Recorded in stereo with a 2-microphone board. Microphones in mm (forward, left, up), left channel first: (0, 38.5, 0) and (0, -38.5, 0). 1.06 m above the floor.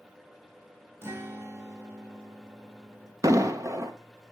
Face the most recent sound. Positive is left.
turn(degrees=-45)  # may be behind; listen again after turning